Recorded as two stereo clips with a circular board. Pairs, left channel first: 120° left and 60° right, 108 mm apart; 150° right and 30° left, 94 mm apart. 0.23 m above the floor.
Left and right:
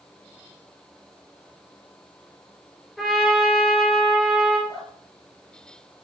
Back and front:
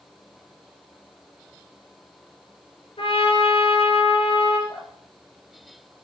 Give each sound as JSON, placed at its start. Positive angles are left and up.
{"t": 3.0, "sound": "a trumpet", "azimuth_deg": -150, "distance_m": 3.0}
{"t": 4.7, "sound": "dripping", "azimuth_deg": 175, "distance_m": 5.0}